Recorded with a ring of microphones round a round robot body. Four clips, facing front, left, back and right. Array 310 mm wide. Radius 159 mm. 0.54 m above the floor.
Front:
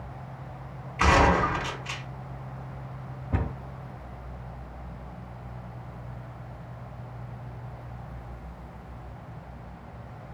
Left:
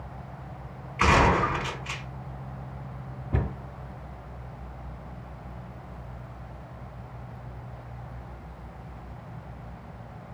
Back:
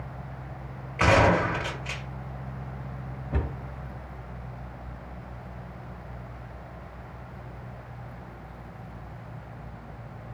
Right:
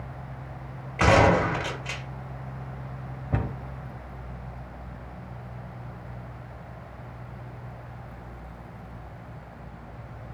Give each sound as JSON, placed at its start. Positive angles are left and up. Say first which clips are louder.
{"t": 1.0, "sound": "a gunshot", "louder": "right 2 dB, even", "azimuth_deg": -115, "distance_m": 2.5}
{"t": 3.3, "sound": "a cupboard door", "louder": "right 1 dB, front 1 dB", "azimuth_deg": -85, "distance_m": 1.7}